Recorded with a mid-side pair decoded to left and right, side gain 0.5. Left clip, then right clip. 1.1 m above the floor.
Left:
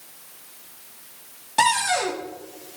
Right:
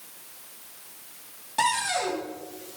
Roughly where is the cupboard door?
Ahead left.